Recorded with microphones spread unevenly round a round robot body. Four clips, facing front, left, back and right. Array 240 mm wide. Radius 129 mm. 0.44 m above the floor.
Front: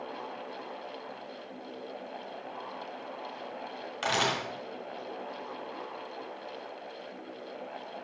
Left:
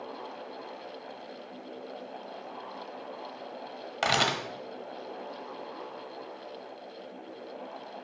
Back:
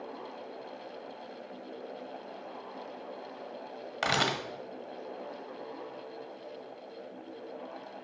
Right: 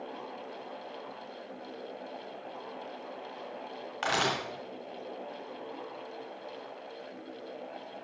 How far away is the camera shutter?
About 1.5 m.